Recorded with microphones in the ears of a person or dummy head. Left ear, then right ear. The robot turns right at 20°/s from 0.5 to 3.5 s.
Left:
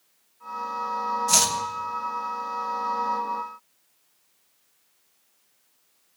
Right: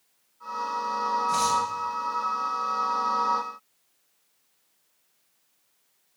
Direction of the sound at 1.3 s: 75° left (ahead or behind).